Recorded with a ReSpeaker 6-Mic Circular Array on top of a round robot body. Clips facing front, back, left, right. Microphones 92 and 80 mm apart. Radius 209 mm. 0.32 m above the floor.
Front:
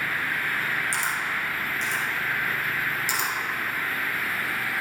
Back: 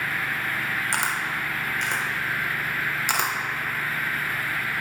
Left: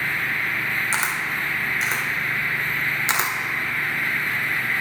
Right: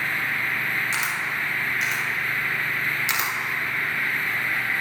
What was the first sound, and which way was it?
A camera shutter, 145° left.